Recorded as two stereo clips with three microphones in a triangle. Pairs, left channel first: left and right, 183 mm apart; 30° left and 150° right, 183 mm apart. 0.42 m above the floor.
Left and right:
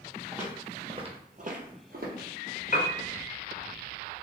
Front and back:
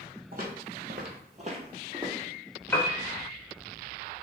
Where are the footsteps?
175° right, 0.8 m; by 2.3 s 75° right, 0.9 m.